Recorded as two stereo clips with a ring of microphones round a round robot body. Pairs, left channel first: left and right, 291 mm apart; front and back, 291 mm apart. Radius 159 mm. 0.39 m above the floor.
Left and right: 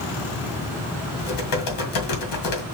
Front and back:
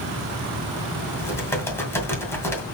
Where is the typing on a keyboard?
80° left, 2 m.